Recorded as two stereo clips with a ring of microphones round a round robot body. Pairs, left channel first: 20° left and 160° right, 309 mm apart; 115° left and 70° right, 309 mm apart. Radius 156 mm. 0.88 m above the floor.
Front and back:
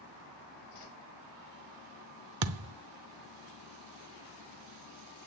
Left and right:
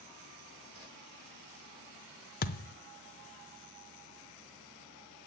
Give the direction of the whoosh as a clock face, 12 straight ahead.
12 o'clock.